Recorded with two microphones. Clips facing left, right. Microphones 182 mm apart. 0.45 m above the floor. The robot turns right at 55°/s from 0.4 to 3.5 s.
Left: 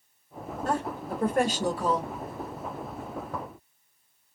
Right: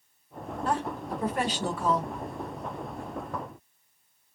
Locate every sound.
0.7 s a woman speaking: 65° left, 1.4 m; by 2.1 s 145° left, 1.4 m